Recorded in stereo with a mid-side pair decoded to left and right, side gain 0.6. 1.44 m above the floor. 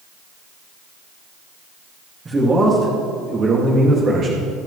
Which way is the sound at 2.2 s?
25° right.